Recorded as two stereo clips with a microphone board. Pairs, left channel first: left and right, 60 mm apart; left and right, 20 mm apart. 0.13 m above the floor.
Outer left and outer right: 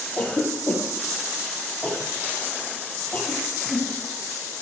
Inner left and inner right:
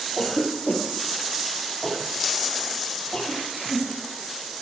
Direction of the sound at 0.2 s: 25° left (ahead or behind).